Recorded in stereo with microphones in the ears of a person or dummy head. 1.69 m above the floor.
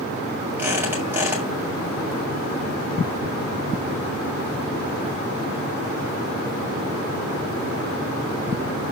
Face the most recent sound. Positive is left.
turn(degrees=-15)  # may be behind; listen again after turning